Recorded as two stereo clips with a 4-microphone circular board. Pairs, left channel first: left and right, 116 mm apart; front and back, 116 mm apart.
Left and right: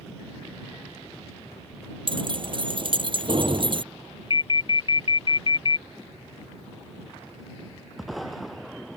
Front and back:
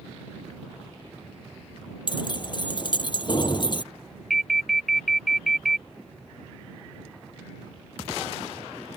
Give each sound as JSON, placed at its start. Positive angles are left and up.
{"t": 2.1, "sound": "keys jangling", "azimuth_deg": -50}
{"t": 4.3, "sound": "an alarm", "azimuth_deg": 90}